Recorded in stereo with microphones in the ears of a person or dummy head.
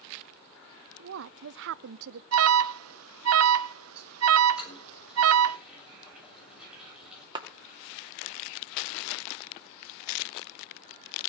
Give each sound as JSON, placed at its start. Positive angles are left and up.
{"t": 1.0, "sound": "a woman speaking", "side_deg": -70, "distance_m": 0.6}
{"t": 2.3, "sound": "an alarm", "side_deg": -80, "distance_m": 0.6}
{"t": 4.6, "sound": "a toilet flushing", "side_deg": -10, "distance_m": 7.0}
{"t": 7.3, "sound": "a clap", "side_deg": -25, "distance_m": 1.9}